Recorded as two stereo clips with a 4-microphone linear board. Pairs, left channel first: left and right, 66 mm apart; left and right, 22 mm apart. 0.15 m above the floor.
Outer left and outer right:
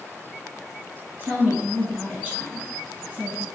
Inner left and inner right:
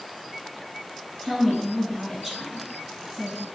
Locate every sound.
1.2 s a woman speaking: 20° right (ahead or behind), 1.5 m